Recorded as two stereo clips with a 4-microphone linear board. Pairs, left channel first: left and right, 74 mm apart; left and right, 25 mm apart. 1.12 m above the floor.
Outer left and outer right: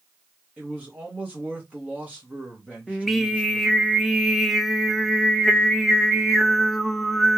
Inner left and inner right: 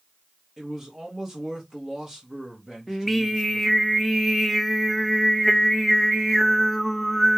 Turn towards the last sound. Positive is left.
turn(degrees=5)  # may be behind; listen again after turning